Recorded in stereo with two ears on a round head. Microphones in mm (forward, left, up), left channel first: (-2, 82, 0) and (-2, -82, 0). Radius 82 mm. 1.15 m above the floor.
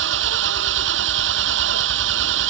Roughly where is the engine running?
Right.